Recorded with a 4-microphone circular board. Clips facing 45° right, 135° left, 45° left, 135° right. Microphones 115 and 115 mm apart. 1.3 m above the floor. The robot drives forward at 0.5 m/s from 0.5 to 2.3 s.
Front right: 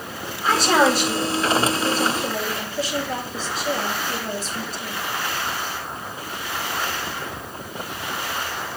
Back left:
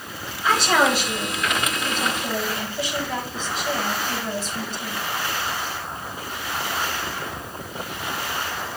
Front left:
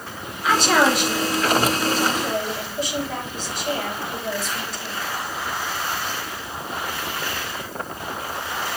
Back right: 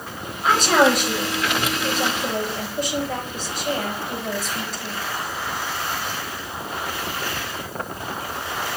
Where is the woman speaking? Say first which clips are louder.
Front right 2 dB, back right 1 dB; 90° right, 7.5 m; by 5.0 s 100° right, 7.5 m.